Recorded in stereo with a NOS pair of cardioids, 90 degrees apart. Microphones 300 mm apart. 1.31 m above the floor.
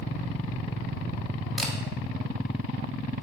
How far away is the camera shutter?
About 2.5 m.